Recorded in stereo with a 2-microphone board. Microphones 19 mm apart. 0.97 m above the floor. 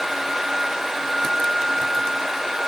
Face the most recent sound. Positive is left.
No sound to turn to.